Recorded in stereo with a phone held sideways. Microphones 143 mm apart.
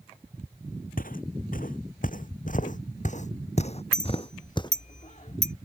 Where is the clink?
60° left (ahead or behind).